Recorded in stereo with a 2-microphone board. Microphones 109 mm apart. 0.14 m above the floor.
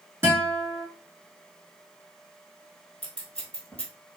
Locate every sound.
0.2 s a guitar: 25° right (ahead or behind), 1.7 m
3.0 s scissors: 10° left (ahead or behind), 1.4 m